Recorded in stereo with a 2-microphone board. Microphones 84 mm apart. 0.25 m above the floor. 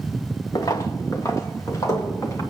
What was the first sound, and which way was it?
Footsteps, 45° left (ahead or behind).